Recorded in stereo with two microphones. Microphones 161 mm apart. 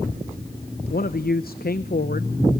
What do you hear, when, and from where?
0.9 s a man speaking: 70° left (ahead or behind), 0.7 m